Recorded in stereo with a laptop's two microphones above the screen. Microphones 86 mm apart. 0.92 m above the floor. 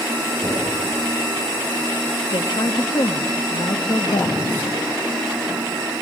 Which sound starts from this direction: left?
A woman speaking, at 2.3 s.